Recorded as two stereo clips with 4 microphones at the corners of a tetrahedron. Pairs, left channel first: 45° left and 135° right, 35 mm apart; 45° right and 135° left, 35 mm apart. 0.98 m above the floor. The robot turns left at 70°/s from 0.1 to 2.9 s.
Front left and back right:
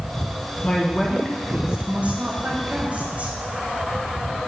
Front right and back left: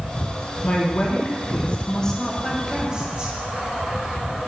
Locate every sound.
0.6 s a woman speaking: 10° right, 1.0 m; by 3.3 s 170° right, 1.0 m